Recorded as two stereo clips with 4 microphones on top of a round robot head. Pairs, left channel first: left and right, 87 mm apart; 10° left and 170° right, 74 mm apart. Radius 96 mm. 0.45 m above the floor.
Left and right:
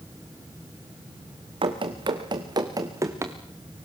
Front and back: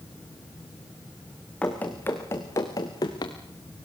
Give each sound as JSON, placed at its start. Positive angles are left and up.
{"t": 1.6, "sound": "running footsteps", "azimuth_deg": -70, "distance_m": 3.0}